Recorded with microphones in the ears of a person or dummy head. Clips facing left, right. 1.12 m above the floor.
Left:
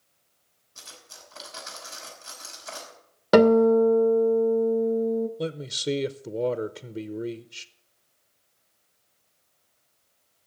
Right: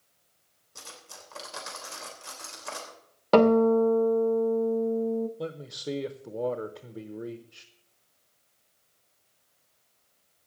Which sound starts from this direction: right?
Cutlery clinking, at 0.8 s.